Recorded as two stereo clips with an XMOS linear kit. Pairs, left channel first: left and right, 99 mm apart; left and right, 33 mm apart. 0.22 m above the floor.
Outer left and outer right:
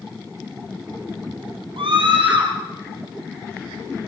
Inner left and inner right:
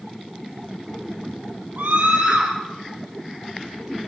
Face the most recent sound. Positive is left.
turn(degrees=-65)  # may be behind; listen again after turning